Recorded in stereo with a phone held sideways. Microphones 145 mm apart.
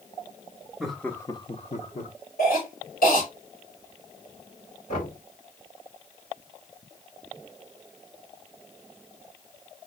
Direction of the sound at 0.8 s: Centre (ahead or behind).